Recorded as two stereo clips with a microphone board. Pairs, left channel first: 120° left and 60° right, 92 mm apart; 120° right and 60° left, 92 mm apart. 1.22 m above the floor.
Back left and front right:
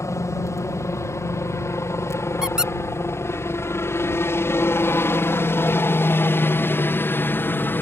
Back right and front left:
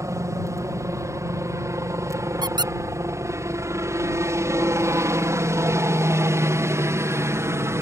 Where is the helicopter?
90° left; by 7.8 s 80° left.